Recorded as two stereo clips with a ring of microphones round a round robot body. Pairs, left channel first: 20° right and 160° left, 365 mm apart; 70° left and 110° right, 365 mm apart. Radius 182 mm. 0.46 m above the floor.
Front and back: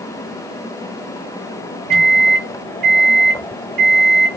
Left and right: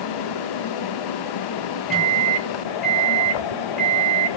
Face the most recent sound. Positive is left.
turn(degrees=160)